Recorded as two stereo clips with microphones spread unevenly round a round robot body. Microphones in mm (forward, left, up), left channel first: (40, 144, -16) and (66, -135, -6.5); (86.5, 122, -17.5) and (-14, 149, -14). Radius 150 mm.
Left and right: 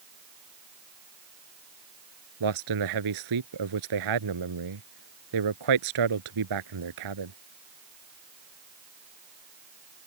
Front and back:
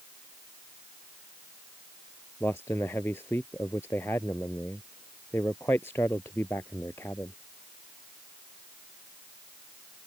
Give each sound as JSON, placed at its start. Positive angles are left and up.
{"t": 2.4, "sound": "a man speaking", "azimuth_deg": -95}